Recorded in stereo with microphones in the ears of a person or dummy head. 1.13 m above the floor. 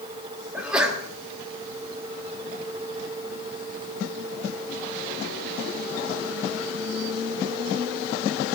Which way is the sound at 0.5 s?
Centre (ahead or behind).